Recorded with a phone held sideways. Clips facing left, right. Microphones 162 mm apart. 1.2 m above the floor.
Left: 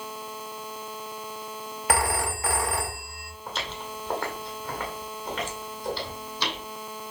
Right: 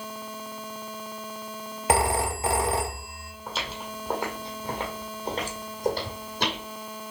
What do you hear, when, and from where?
1.9 s a phone ringing: 20° right (ahead or behind), 0.9 m
3.5 s footsteps: centre (ahead or behind), 2 m; by 6.6 s 50° right (ahead or behind), 2.5 m